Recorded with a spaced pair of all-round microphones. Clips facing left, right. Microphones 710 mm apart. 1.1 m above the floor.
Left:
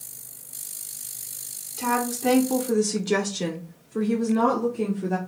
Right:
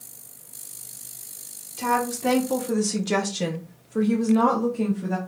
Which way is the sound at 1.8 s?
10° right (ahead or behind).